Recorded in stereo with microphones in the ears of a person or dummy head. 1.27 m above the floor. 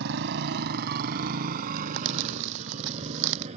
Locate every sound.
0.0 s a motorcycle: 65° right (ahead or behind); by 3.6 s 35° right (ahead or behind)
1.8 s crumpling: 65° right (ahead or behind)